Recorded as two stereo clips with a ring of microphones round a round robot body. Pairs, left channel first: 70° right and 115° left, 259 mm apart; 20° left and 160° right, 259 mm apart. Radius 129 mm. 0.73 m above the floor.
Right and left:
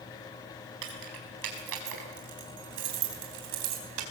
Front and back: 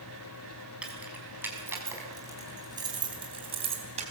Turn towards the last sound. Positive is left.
turn(degrees=135)